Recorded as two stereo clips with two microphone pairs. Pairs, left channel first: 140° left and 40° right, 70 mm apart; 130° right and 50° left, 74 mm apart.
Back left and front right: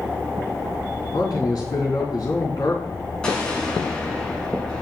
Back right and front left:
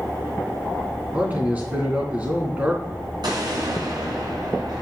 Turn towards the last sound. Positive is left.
turn(degrees=60)